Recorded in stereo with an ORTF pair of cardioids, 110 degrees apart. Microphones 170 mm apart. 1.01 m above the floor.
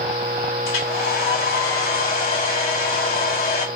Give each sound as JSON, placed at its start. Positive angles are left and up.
{"t": 0.7, "sound": "a hair dryer", "azimuth_deg": 70, "distance_m": 3.0}